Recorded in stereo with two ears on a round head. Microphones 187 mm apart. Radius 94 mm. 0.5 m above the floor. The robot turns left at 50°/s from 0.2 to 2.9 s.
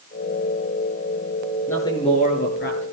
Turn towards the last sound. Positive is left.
turn(degrees=110)